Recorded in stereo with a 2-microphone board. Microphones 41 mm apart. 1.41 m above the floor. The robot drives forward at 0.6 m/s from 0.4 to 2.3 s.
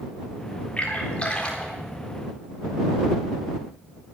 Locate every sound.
0.8 s a splash: 35° left (ahead or behind), 3.5 m; by 1.7 s 30° left (ahead or behind), 4 m